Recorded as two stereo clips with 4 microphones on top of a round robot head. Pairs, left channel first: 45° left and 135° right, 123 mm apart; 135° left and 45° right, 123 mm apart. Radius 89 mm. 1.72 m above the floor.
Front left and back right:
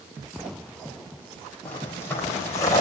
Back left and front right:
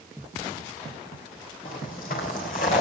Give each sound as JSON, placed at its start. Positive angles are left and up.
{"t": 1.6, "sound": "footsteps", "azimuth_deg": 120, "distance_m": 4.0}